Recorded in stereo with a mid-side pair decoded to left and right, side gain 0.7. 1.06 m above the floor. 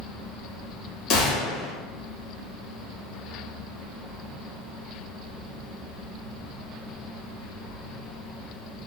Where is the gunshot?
60° left, 1.3 m.